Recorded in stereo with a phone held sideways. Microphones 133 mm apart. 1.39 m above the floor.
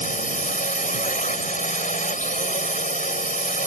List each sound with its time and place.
0.0 s a drone: 80° left